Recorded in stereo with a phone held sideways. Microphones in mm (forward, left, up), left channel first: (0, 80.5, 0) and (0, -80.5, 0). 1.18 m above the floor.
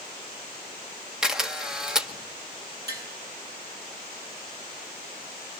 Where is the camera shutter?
5° right (ahead or behind), 1.7 m.